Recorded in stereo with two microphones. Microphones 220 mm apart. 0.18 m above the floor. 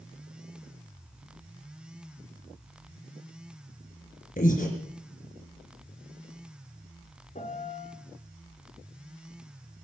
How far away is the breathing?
About 3 m.